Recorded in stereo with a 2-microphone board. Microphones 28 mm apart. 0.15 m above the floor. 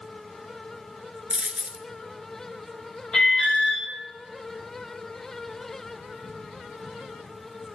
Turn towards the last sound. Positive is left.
turn(degrees=25)  # may be behind; listen again after turning